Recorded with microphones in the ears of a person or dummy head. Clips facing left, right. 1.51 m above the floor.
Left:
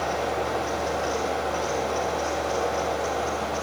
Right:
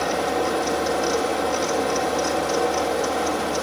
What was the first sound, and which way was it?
A fan, 70° right (ahead or behind).